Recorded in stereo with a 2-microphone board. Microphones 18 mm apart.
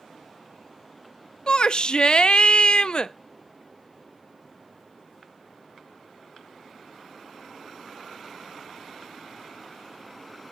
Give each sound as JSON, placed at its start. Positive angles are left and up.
{"t": 1.5, "sound": "a shout", "side_deg": 55, "distance_m": 0.6}